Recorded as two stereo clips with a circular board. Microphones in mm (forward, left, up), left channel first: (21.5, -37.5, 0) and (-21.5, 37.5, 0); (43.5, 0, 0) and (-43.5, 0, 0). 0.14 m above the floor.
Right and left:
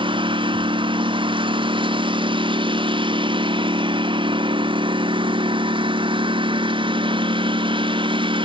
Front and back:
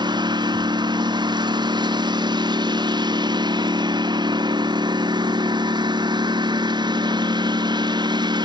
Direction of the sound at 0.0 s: 145° left.